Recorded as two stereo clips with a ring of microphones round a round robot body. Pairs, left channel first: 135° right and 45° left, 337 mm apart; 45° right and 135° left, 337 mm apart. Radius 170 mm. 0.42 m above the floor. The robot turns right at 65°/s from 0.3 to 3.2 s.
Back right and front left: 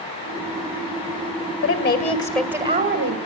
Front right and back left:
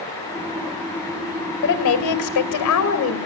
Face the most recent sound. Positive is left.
turn(degrees=5)